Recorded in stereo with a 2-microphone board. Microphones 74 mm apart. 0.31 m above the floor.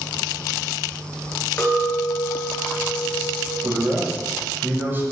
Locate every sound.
1.6 s a clink: 30° left (ahead or behind), 2.5 m
3.6 s a man speaking: 30° right (ahead or behind), 1.6 m